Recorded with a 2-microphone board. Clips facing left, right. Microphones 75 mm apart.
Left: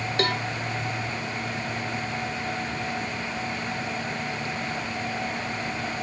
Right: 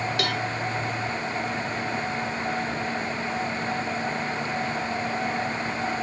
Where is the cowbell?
35° left (ahead or behind).